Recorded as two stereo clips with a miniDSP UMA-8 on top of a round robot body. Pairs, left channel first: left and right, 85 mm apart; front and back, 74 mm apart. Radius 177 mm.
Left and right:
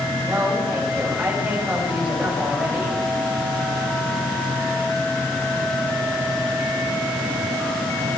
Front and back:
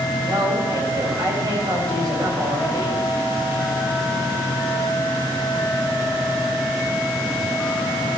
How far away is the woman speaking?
About 4.5 m.